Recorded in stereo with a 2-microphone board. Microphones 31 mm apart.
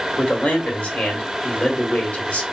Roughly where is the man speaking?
Left.